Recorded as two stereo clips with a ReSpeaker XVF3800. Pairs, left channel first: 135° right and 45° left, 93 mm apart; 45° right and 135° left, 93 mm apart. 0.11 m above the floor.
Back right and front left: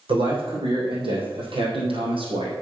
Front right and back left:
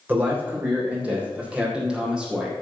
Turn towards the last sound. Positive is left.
turn(degrees=50)